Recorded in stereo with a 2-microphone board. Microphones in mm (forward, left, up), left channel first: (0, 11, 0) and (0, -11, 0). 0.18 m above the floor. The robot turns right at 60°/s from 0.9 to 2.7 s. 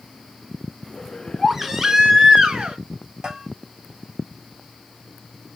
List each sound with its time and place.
1.4 s a baby crying: 175° right, 1.2 m; by 2.8 s 95° right, 1.2 m
3.2 s a bell: 35° right (ahead or behind), 3 m